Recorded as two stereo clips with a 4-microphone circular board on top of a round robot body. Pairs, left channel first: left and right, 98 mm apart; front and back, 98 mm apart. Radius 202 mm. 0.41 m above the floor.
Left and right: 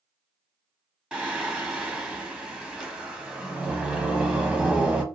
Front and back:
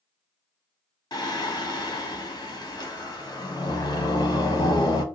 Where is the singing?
15° right, 1.2 m.